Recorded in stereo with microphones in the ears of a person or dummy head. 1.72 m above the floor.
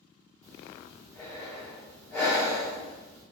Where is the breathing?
15° left (ahead or behind), 1.3 m.